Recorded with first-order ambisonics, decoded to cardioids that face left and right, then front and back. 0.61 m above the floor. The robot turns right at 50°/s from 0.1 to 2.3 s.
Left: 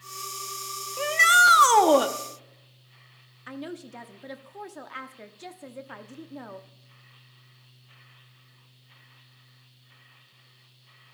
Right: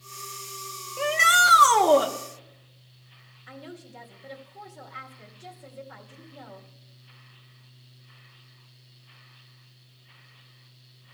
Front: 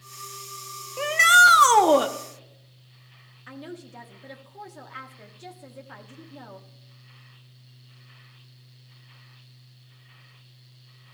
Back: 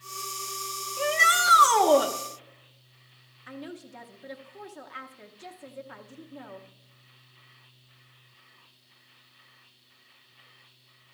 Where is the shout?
Straight ahead, 0.6 m; by 2.1 s 55° left, 0.6 m.